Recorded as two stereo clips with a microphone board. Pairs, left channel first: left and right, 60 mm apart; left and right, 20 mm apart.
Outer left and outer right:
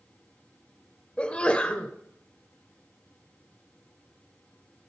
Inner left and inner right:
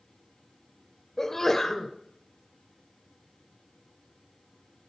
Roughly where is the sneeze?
Centre.